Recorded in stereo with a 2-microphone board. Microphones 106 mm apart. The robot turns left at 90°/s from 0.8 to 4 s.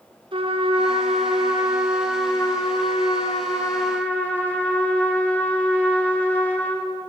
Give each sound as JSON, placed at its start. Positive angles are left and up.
{"t": 0.3, "sound": "a trumpet", "azimuth_deg": -55, "distance_m": 4.0}